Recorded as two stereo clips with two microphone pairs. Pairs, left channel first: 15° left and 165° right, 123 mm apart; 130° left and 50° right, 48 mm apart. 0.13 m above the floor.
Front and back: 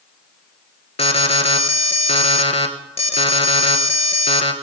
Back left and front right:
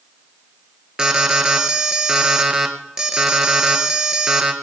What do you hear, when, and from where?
1.0 s an alarm: 25° left, 1.3 m